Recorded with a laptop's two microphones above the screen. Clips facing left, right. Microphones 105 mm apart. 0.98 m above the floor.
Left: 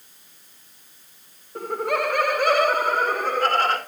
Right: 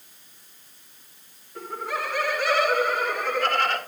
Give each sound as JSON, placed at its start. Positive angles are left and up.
{"t": 1.6, "sound": "laughter", "side_deg": 45, "distance_m": 0.6}